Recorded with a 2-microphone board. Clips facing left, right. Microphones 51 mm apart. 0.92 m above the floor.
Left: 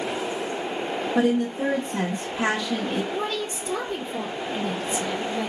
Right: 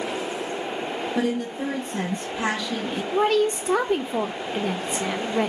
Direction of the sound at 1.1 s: 20° left (ahead or behind).